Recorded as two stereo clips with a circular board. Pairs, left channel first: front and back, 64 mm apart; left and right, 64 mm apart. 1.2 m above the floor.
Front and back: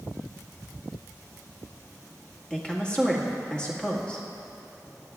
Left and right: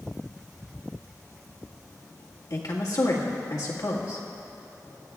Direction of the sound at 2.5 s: 75° left.